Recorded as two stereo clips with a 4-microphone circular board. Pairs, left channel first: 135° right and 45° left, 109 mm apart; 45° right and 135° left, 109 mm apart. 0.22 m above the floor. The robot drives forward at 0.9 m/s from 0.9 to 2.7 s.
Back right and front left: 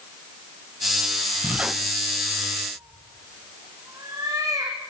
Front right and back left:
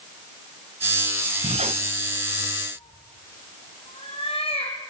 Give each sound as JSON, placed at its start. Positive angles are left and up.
{"t": 1.4, "sound": "a squeak", "azimuth_deg": 115, "distance_m": 0.9}
{"t": 2.8, "sound": "a cat meowing", "azimuth_deg": -15, "distance_m": 5.0}